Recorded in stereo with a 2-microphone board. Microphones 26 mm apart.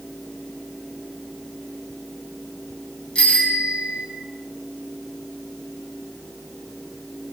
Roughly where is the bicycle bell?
Left.